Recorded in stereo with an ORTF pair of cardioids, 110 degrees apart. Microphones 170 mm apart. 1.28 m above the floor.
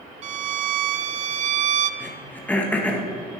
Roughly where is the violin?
Ahead right.